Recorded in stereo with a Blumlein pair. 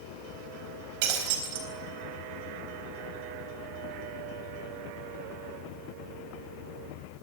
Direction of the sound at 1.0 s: 50° right.